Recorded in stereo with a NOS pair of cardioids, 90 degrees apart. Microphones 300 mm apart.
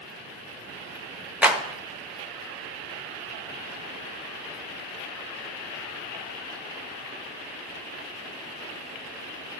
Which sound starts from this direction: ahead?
A clap, at 1.4 s.